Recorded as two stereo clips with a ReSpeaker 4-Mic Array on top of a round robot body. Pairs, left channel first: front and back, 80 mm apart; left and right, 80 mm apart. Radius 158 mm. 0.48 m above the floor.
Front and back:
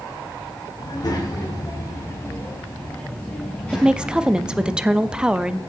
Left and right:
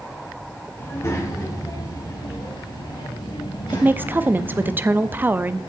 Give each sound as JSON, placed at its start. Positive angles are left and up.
{"t": 0.8, "sound": "a child speaking", "azimuth_deg": 30, "distance_m": 3.5}
{"t": 3.7, "sound": "a woman speaking", "azimuth_deg": -115, "distance_m": 0.8}